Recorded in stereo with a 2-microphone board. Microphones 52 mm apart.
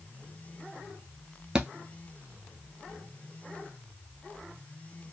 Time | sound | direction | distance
1.6 | a thud | 15° right (ahead or behind) | 0.5 m